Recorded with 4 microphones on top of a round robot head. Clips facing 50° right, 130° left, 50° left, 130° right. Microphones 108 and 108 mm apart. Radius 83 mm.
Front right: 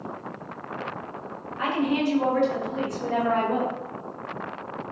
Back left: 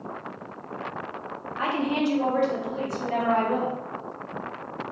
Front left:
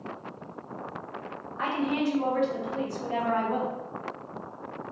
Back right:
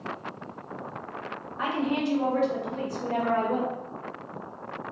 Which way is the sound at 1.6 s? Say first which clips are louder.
Front right 1 dB, even; 150° left.